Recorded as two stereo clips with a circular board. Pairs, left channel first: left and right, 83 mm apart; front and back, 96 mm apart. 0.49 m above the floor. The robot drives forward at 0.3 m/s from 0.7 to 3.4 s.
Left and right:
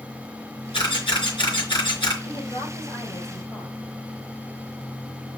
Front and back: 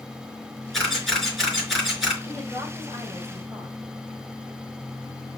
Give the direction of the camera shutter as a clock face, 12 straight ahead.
9 o'clock.